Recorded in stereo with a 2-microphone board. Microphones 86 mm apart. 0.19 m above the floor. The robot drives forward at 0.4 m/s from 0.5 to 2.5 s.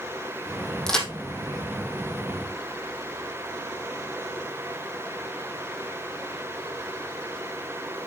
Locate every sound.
0.9 s a crack: 5° left (ahead or behind), 2.0 m